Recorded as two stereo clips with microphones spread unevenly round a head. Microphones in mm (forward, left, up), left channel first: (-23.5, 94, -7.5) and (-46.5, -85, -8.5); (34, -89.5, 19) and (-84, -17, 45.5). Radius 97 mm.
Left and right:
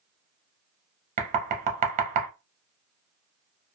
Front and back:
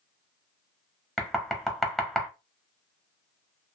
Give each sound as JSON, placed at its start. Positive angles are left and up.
{"t": 1.2, "sound": "knocking", "azimuth_deg": -130, "distance_m": 0.7}